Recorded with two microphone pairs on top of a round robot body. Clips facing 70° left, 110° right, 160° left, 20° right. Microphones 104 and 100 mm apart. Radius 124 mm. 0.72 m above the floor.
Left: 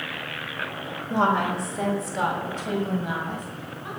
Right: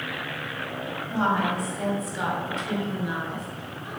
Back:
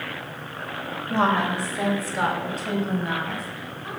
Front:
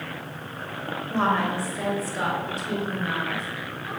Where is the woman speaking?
85° left, 3.5 m; by 3.9 s 105° left, 5.5 m.